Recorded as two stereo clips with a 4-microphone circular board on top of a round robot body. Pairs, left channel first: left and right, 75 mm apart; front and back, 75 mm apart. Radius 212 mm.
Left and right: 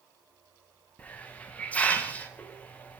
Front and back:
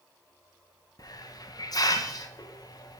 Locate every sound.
1.0 s a hiss: 20° left, 0.8 m